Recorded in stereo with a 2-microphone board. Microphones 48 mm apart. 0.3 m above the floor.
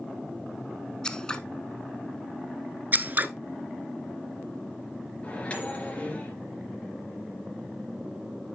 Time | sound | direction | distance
1.0 | scissors | 15° left (ahead or behind) | 0.8 m
2.9 | scissors | 40° right (ahead or behind) | 0.6 m
5.2 | a microwave | 25° left (ahead or behind) | 3 m